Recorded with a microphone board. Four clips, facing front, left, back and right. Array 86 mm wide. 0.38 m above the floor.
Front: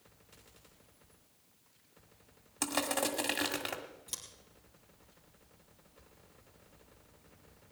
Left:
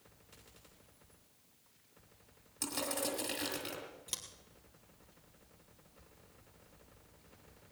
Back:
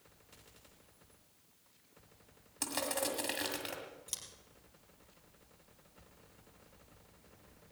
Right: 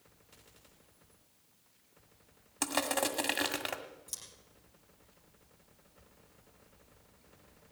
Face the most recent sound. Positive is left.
turn(degrees=95)